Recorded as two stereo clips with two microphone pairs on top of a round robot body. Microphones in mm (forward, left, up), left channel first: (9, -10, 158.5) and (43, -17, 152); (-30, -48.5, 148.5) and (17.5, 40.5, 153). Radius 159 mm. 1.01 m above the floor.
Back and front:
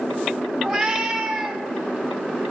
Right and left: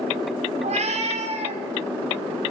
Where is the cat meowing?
80° left, 3 m.